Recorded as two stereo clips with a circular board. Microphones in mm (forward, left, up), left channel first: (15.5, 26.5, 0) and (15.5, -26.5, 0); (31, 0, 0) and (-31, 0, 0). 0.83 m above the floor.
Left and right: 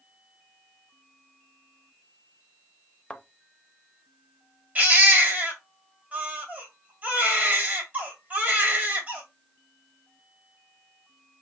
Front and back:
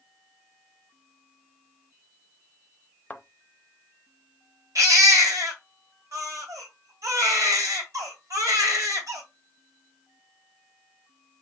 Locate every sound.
3.1 s a thud: 40° left, 0.6 m
4.8 s a baby crying: 150° right, 1.9 m